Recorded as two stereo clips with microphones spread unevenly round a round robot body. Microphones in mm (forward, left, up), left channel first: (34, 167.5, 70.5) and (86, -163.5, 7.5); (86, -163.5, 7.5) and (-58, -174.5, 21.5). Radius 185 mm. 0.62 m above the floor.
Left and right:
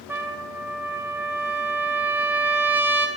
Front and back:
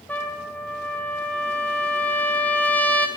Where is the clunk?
No clunk in this recording.